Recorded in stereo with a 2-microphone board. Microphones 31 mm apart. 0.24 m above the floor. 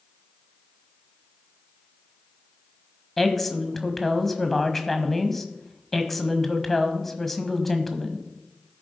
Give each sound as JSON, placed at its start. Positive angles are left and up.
{"t": 3.2, "sound": "a woman speaking", "side_deg": 5, "distance_m": 1.3}